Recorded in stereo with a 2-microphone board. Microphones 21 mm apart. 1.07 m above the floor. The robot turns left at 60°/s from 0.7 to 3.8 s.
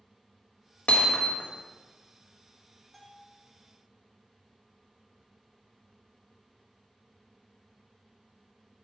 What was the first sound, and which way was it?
Hammering, 95° left.